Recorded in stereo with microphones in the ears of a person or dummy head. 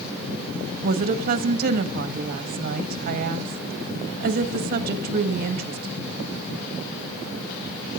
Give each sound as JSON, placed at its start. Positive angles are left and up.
{"t": 0.8, "sound": "a woman speaking", "side_deg": -40, "distance_m": 1.4}